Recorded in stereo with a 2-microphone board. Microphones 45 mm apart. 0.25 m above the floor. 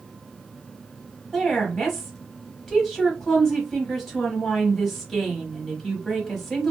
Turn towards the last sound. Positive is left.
turn(degrees=5)  # may be behind; listen again after turning